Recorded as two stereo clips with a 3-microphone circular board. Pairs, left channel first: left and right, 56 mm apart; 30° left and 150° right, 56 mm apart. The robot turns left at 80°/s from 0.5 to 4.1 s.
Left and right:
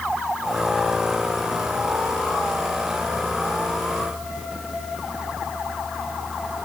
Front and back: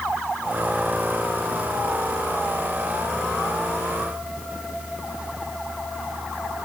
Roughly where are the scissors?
No scissors in this recording.